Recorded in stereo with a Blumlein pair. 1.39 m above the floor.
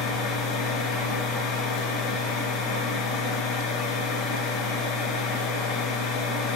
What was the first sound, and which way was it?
A machine running, 25° left.